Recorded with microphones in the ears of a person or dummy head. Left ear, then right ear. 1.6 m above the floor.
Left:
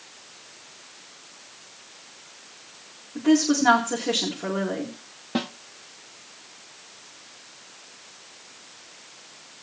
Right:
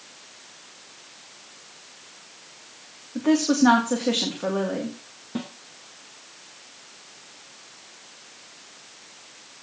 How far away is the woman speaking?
About 1.9 m.